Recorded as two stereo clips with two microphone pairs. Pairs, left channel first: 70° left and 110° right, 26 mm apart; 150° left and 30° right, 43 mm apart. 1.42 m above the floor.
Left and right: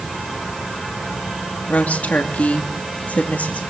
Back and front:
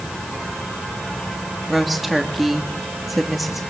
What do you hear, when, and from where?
1.7 s a woman speaking: 60° left, 2.5 m